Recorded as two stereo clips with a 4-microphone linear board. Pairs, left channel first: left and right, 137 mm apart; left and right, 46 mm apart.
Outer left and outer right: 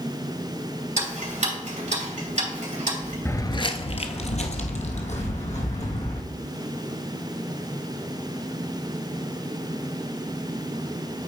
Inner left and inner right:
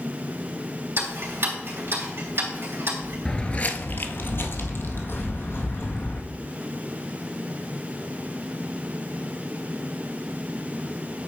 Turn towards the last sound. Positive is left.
turn(degrees=55)  # may be behind; listen again after turning